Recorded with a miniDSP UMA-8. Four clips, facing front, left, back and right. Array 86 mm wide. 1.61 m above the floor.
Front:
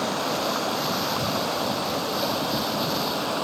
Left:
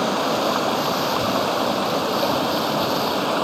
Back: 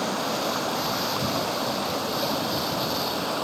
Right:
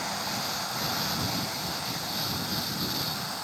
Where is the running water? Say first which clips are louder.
Left 13 dB, front 1 dB; 90° left.